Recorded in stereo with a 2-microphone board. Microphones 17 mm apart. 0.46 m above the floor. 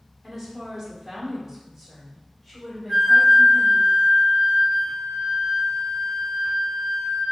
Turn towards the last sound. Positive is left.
turn(degrees=-30)  # may be behind; listen again after turning